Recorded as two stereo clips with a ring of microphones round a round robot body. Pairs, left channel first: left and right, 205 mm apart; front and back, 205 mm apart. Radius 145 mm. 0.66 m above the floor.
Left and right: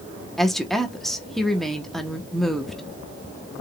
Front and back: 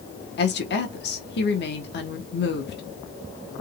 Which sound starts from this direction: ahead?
A woman speaking, at 0.4 s.